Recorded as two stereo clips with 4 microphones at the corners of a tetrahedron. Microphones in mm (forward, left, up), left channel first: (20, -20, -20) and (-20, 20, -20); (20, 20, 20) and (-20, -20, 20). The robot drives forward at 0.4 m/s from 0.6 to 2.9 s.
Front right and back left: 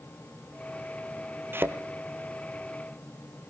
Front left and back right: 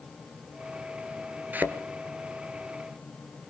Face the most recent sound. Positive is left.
turn(degrees=175)